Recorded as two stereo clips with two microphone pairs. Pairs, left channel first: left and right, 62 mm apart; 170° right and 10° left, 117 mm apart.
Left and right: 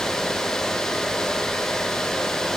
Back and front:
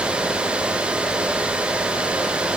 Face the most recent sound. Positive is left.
No sound to turn to.